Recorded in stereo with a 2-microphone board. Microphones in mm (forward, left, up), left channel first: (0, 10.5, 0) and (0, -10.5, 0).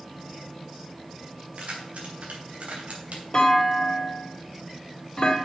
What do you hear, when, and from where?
1.5 s keys jangling: 80° right, 3.5 m; by 3.2 s 70° right (ahead or behind), 2.5 m
3.3 s a clunk: 30° left (ahead or behind), 2 m